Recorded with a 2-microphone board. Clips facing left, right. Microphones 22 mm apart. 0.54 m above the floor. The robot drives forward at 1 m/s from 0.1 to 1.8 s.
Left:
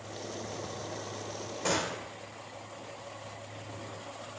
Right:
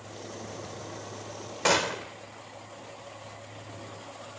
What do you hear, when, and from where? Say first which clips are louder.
1.6 s a gunshot: right 7 dB; 55° right (ahead or behind), 1.2 m; by 2.1 s 50° right (ahead or behind), 1.3 m